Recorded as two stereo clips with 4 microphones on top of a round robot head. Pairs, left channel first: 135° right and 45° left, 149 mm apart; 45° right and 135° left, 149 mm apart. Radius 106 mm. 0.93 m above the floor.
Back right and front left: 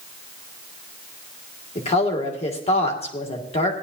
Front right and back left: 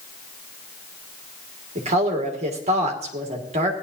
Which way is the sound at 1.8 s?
Straight behind.